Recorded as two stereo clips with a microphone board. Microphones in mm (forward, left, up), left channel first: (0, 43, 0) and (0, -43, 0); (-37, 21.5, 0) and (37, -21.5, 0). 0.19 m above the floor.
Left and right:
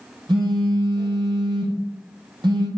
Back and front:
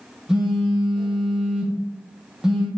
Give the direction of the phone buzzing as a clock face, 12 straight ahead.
4 o'clock.